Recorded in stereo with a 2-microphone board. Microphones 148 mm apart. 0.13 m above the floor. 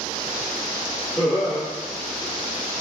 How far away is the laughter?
About 1.8 m.